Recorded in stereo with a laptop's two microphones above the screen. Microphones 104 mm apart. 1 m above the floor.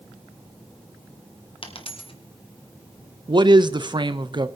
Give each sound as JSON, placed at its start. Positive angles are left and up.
{"t": 1.6, "sound": "a dropped coin", "side_deg": 60, "distance_m": 1.6}
{"t": 3.3, "sound": "a man speaking", "side_deg": -45, "distance_m": 0.6}